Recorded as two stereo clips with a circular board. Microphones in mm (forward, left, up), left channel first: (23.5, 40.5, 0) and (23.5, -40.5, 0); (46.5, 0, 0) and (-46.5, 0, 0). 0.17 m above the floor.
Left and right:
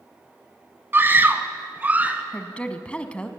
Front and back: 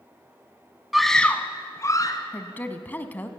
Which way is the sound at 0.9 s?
95° right.